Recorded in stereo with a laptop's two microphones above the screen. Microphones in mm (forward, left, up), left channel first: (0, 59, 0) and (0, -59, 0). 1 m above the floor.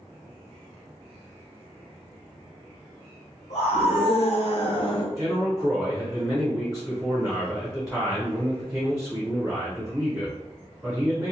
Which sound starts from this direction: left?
A scream, at 3.5 s.